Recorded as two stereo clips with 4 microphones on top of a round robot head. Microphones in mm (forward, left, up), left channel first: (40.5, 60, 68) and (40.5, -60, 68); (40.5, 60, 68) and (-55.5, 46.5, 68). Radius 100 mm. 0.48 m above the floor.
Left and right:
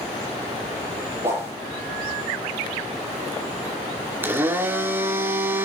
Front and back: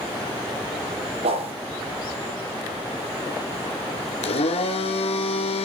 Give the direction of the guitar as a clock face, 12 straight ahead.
I don't hear a guitar.